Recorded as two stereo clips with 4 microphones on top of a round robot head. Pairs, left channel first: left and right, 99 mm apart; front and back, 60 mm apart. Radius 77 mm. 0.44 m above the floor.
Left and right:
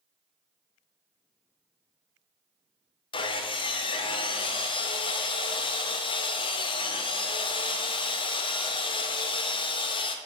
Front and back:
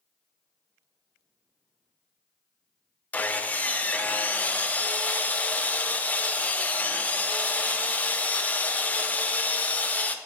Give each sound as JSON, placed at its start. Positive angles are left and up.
{"t": 3.1, "sound": "sawing", "azimuth_deg": 60, "distance_m": 0.6}